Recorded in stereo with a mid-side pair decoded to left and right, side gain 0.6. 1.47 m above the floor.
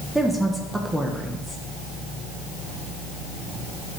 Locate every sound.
0.1 s a woman speaking: 5° right, 1.3 m